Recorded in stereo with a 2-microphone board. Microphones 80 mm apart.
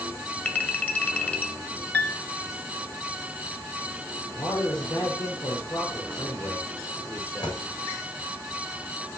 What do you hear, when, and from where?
0.5 s a clink: 20° left (ahead or behind), 1.4 m
1.9 s a piano: 15° left (ahead or behind), 1.0 m
4.3 s a man speaking: 60° left (ahead or behind), 6 m
7.2 s a dropped coin: 60° left (ahead or behind), 8.5 m